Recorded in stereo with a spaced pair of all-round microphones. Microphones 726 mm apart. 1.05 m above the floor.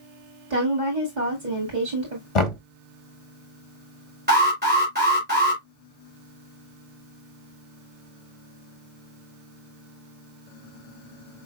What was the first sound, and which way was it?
A woman speaking, 80° right.